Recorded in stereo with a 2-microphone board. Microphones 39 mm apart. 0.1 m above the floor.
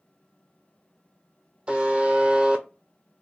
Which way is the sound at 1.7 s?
30° right (ahead or behind).